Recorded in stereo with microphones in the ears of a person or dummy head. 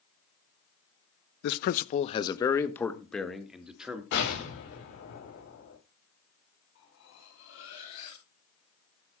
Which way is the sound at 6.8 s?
85° left.